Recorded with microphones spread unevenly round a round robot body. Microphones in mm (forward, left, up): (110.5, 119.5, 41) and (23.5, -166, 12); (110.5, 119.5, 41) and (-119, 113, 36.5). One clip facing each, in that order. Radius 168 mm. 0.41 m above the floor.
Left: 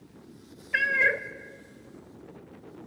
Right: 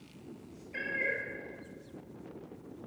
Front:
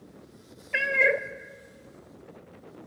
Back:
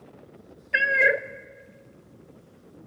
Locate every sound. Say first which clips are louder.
0.7 s a cat meowing: left 6 dB, back 1 dB; 100° left, 0.6 m